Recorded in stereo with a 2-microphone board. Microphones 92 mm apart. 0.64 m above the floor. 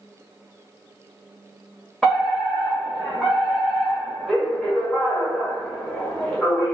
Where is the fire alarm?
5° left (ahead or behind), 1.8 m.